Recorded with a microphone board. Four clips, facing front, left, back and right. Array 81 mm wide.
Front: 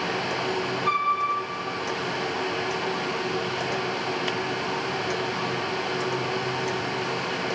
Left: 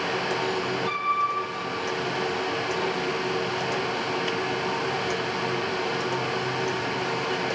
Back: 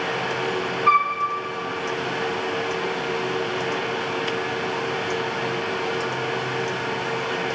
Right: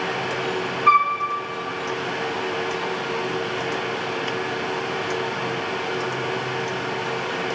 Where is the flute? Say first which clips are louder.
Right 14 dB, back 6 dB; 115° right, 4.5 m.